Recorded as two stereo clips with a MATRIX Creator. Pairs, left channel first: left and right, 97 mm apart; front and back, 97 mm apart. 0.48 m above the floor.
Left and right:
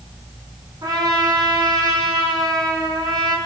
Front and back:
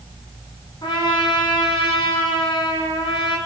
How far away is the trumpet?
About 4 m.